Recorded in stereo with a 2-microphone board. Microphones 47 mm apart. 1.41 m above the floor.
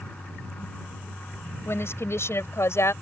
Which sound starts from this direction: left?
A woman speaking, at 1.6 s.